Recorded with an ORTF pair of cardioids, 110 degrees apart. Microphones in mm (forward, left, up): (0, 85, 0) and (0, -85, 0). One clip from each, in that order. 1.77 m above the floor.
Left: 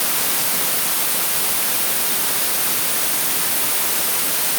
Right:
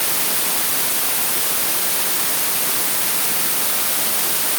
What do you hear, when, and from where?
Only background noise.